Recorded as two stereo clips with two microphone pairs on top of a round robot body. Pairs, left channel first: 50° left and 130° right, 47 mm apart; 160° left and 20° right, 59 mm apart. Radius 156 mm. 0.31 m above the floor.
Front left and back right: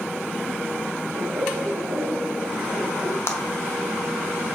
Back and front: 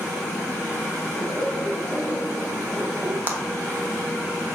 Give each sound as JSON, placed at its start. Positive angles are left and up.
{"t": 1.1, "sound": "laughter", "azimuth_deg": -145, "distance_m": 2.0}
{"t": 3.3, "sound": "a clap", "azimuth_deg": 35, "distance_m": 2.0}